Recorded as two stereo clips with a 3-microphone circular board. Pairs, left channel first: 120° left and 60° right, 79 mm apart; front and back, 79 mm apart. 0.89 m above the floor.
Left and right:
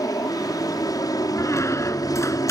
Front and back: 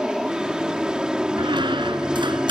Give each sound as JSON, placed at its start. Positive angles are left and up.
{"t": 0.0, "sound": "an aircraft", "azimuth_deg": 105}
{"t": 1.4, "sound": "a squeak", "azimuth_deg": 170}